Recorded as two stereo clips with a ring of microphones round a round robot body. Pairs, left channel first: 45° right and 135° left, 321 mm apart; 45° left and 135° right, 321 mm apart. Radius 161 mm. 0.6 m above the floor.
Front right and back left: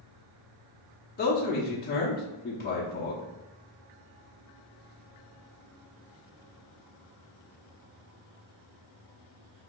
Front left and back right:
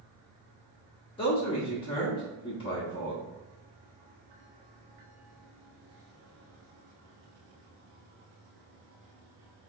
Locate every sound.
1.2 s a man speaking: 15° right, 0.6 m